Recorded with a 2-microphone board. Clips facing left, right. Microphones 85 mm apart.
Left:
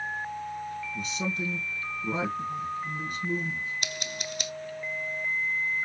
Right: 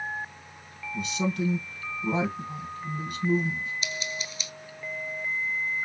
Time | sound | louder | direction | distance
0.9 | a man speaking | right 7 dB | 70° right (ahead or behind) | 3 m
3.8 | scissors | right 1 dB | 60° left (ahead or behind) | 0.5 m